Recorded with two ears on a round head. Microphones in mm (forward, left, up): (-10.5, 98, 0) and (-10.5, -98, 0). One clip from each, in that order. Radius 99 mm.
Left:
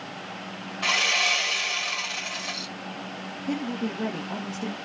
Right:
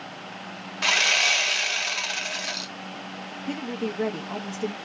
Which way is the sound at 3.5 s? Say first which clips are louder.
Even; 65° right (ahead or behind).